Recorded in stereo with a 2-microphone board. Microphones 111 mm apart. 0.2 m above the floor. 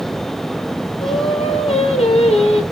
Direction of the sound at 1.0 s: 70° left (ahead or behind).